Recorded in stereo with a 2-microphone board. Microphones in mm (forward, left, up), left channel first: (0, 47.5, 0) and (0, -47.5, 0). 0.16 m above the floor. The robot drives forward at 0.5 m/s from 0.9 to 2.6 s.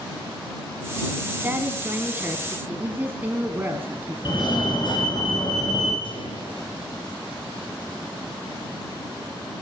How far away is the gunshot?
About 4 m.